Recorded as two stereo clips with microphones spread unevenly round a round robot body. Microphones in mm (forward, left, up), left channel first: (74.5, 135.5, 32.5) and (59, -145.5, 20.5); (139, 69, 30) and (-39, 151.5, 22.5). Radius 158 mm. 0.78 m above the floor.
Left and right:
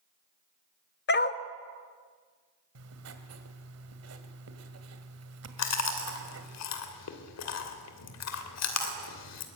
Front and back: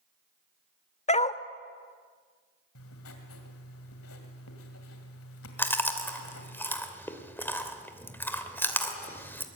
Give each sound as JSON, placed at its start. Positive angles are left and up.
{"t": 1.1, "sound": "a dog barking", "azimuth_deg": 35, "distance_m": 1.3}
{"t": 2.8, "sound": "writing", "azimuth_deg": -55, "distance_m": 2.0}
{"t": 5.6, "sound": "chewing", "azimuth_deg": 55, "distance_m": 2.5}